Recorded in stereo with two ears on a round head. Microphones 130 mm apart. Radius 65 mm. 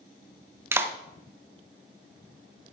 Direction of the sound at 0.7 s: 15° right (ahead or behind).